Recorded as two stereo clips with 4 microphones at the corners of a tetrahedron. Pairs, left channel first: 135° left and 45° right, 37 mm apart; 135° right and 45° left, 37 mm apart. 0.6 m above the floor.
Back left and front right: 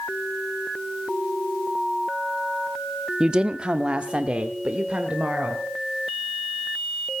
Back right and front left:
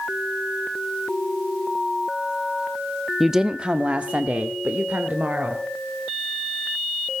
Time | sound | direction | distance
3.2 | a woman speaking | 35° right | 0.6 m